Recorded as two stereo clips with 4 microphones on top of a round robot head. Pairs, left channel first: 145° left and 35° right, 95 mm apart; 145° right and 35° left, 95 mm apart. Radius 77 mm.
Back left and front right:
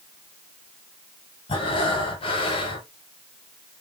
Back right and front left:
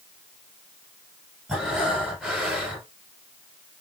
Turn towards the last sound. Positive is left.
turn(degrees=120)